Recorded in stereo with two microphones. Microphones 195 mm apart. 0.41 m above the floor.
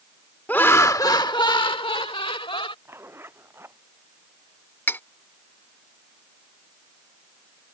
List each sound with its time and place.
0.5 s laughter: 10° left (ahead or behind); by 2.8 s 25° left (ahead or behind)
2.9 s a zipper: 10° right (ahead or behind)
4.9 s cutlery clinking: 10° left (ahead or behind)